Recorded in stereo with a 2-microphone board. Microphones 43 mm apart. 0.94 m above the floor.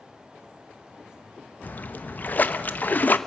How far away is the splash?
About 0.9 m.